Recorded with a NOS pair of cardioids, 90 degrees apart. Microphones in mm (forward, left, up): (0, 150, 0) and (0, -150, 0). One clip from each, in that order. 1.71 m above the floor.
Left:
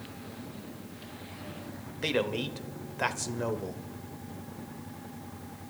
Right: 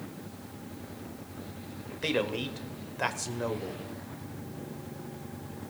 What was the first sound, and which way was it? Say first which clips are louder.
A man speaking: even; 5° left.